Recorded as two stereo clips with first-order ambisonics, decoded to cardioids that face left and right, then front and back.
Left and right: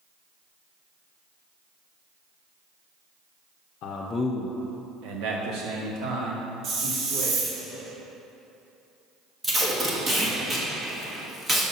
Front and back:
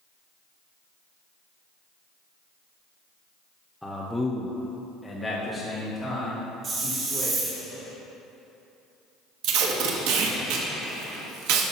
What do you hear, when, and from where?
3.8 s a man speaking: 90° left, 0.7 m; by 7.5 s 85° right, 3.5 m
6.6 s a hiss: 125° right, 1.2 m
9.4 s tape being pulled: 165° right, 1.1 m